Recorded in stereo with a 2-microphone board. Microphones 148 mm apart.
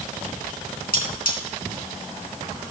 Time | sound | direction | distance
0.9 | cutlery clinking | 80° left | 3.5 m